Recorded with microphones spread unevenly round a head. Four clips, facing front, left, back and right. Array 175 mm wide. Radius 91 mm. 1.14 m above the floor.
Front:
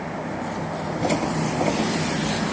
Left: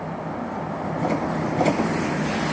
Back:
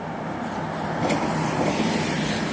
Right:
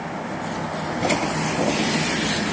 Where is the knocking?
No knocking in this recording.